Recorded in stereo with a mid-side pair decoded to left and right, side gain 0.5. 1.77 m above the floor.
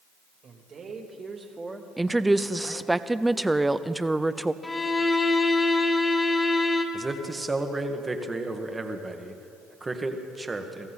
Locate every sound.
0.4 s a man speaking: 50° right, 3 m; by 3.0 s 30° left, 2 m
2.0 s a woman speaking: 10° right, 0.7 m
4.6 s a violin: 25° left, 2 m
6.9 s a man speaking: 20° right, 1.6 m